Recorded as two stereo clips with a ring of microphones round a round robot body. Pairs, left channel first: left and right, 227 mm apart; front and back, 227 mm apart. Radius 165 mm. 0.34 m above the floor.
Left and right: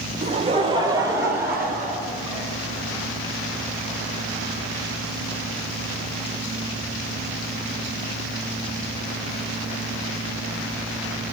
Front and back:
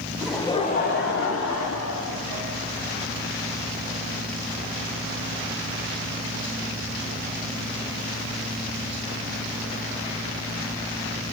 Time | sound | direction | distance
0.2 | laughter | 105° right | 0.9 m